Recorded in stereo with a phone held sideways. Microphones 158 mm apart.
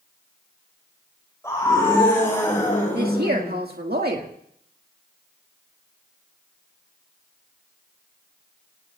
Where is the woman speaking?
70° right (ahead or behind), 1.9 m.